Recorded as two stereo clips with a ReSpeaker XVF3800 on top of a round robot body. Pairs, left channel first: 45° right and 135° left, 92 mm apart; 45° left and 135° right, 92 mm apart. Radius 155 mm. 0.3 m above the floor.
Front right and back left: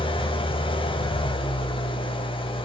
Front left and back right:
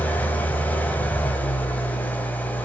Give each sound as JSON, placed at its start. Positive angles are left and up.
{"t": 0.0, "sound": "an engine running", "azimuth_deg": -30, "distance_m": 1.7}